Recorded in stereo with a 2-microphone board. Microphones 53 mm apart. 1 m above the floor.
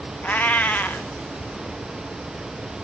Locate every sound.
0.2 s a cat meowing: 30° left (ahead or behind), 0.6 m